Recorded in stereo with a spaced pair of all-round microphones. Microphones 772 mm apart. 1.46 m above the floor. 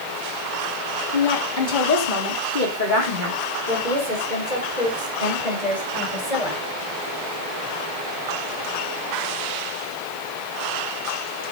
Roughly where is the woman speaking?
Left.